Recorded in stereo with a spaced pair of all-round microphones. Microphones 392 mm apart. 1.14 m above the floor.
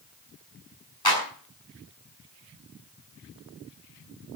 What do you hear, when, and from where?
1.1 s a clap: 65° left (ahead or behind), 7 m